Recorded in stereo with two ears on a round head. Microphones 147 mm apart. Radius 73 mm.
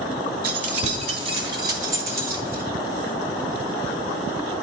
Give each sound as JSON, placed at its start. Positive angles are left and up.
{"t": 0.4, "sound": "keys jangling", "side_deg": -55, "distance_m": 1.4}